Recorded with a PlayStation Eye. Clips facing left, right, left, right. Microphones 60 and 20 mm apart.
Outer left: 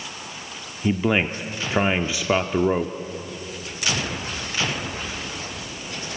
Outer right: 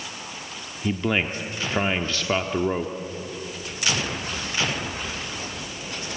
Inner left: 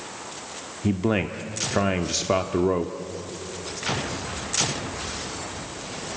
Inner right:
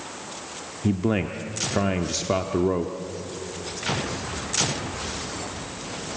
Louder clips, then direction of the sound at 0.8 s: Outer left 3 dB, even; 10° left (ahead or behind).